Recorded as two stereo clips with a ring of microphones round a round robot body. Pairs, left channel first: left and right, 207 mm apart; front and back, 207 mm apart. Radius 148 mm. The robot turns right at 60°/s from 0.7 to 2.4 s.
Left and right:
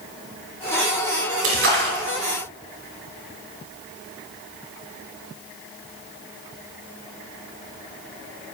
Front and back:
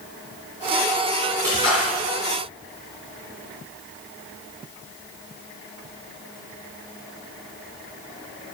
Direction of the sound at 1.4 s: 85° right.